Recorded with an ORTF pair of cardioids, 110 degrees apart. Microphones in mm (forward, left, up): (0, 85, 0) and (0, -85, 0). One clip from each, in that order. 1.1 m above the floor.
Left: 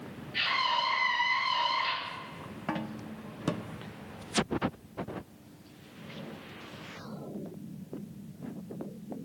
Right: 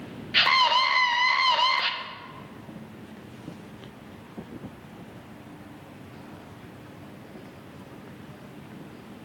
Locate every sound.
0.3 s a scream: 70° right, 0.6 m